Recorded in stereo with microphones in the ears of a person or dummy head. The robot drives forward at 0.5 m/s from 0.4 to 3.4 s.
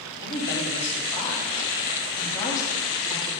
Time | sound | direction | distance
0.2 | a woman speaking | 10° left (ahead or behind) | 3 m